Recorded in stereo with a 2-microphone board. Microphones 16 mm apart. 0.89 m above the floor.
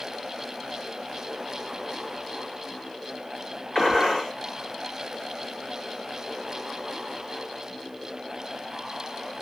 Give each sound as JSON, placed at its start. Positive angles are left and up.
{"t": 3.8, "sound": "a gunshot", "side_deg": 45, "distance_m": 1.3}